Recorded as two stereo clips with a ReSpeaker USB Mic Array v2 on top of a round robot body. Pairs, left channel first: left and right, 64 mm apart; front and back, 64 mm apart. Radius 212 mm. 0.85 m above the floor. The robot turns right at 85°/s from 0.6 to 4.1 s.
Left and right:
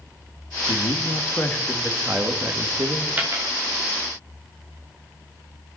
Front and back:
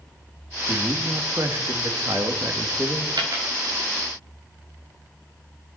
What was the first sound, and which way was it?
A man speaking, 85° left.